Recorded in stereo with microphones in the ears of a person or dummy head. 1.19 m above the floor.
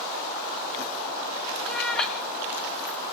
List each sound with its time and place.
1.7 s a cat meowing: centre (ahead or behind), 1.7 m